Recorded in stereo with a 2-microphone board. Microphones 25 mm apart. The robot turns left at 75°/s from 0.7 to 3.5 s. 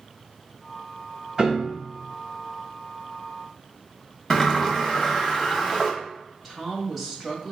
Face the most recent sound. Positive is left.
turn(degrees=0)  # may be behind; listen again after turning